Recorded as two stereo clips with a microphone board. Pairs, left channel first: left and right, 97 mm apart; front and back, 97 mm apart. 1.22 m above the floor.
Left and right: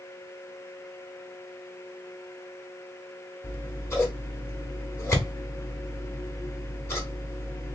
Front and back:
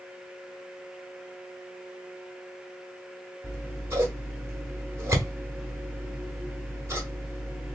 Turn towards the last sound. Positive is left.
turn(degrees=135)